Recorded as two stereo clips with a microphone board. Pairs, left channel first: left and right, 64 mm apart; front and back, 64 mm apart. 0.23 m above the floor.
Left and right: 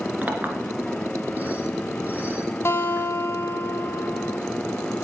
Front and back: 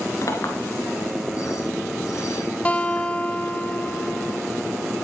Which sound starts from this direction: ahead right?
A clink, at 0.2 s.